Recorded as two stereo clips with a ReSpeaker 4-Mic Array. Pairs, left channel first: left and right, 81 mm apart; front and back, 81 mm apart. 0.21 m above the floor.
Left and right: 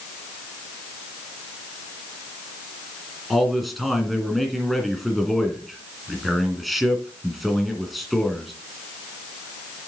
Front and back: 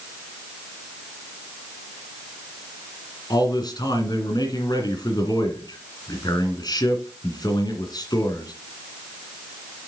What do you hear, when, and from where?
3.3 s a man speaking: straight ahead, 1.8 m